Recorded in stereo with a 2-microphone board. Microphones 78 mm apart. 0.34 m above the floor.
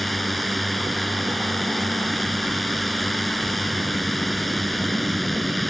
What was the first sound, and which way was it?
A drone, centre (ahead or behind).